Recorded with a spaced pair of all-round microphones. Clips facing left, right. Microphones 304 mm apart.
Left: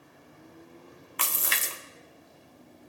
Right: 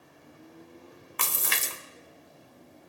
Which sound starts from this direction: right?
A splash, at 1.2 s.